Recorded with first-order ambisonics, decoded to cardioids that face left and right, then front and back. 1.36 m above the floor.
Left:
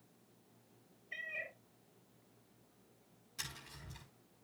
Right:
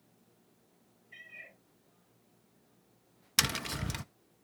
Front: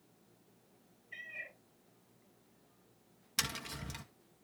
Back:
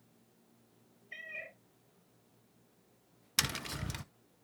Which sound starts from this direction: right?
Tapping, at 3.4 s.